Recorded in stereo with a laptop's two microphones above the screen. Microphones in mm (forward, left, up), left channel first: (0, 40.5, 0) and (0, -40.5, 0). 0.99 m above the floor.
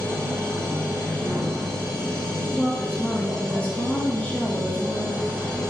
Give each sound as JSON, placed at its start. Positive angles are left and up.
{"t": 0.0, "sound": "a machine running", "side_deg": 10, "distance_m": 2.5}
{"t": 2.5, "sound": "a woman speaking", "side_deg": 20, "distance_m": 1.0}